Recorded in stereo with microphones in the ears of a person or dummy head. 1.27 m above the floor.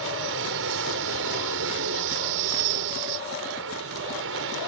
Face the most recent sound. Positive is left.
turn(degrees=-70)  # may be behind; listen again after turning